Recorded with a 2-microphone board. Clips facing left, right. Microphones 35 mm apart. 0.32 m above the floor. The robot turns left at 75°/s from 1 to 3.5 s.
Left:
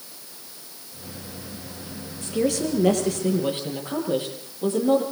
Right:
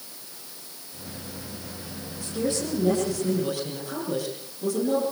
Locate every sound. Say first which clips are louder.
2.2 s a woman speaking: left 4 dB; 130° left, 10 m; by 5.0 s 35° left, 10 m